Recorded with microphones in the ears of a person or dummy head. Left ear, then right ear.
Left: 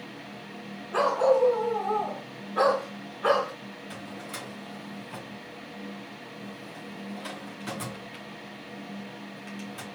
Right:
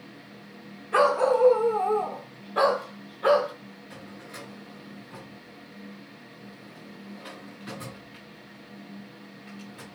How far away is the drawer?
About 0.8 m.